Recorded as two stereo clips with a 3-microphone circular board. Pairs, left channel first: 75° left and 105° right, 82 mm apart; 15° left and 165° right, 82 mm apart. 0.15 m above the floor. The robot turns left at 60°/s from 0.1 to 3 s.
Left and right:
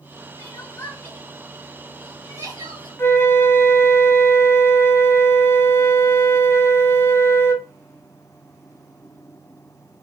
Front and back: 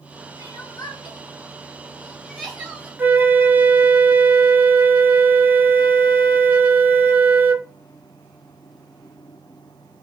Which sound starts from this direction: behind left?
A flute, at 3.0 s.